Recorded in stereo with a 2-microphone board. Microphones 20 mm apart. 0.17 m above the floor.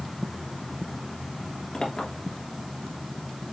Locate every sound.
1.7 s a clink: 55° left (ahead or behind), 2.5 m